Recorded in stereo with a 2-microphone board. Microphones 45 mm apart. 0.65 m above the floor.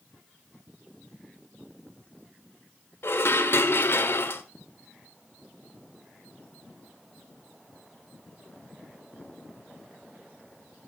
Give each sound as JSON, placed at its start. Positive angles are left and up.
{"t": 3.0, "sound": "dishes clattering", "side_deg": 55, "distance_m": 1.5}